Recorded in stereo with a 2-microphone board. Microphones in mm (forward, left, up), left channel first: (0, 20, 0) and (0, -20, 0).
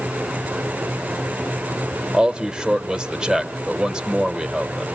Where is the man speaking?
20° right (ahead or behind), 0.9 m.